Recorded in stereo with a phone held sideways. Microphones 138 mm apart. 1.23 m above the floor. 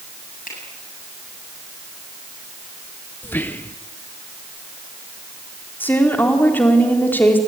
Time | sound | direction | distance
0.5 | a finger snap | 80° left | 8 m
3.2 | whispering | 15° left (ahead or behind) | 0.8 m
5.8 | a woman speaking | 15° left (ahead or behind) | 4 m